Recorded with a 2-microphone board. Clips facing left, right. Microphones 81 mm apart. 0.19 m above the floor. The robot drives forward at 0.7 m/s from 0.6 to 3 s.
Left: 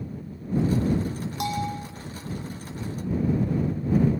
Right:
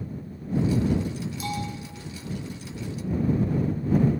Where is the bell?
80° left, 5.5 m.